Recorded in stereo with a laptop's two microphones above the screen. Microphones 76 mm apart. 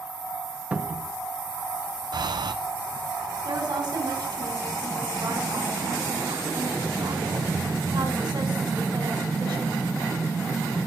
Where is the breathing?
65° right (ahead or behind), 0.7 m.